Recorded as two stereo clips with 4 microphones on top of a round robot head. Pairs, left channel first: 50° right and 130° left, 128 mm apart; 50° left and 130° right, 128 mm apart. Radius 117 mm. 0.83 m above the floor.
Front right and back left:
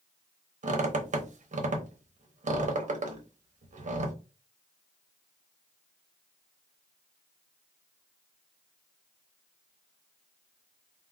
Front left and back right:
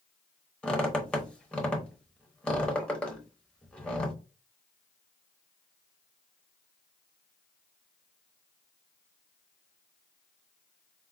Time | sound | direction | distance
0.6 | a squeak | 135° left | 0.9 m